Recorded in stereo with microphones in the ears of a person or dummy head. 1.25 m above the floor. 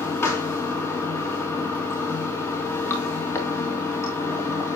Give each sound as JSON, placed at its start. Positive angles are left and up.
{"t": 0.0, "sound": "running water", "side_deg": 20, "distance_m": 1.7}